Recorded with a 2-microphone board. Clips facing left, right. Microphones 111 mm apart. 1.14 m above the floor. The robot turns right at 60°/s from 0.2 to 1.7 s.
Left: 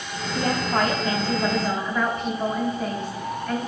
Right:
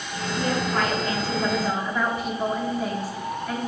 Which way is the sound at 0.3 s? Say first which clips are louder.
Left 2 dB; 105° left.